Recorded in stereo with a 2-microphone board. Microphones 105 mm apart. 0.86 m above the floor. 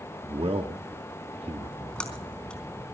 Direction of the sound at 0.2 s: 65° right (ahead or behind).